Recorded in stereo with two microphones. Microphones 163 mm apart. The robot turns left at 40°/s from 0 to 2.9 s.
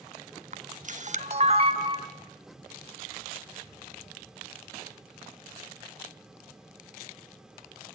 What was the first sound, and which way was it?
A camera shutter, 50° right (ahead or behind).